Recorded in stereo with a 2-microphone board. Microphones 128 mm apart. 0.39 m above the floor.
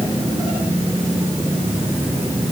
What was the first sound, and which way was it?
Only background noise.